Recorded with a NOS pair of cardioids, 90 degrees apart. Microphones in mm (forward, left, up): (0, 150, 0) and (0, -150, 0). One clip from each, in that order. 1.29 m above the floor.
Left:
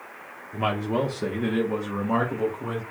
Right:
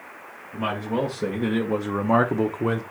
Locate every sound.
0.5 s a man speaking: 20° left, 1.1 m; by 2.8 s 55° right, 0.9 m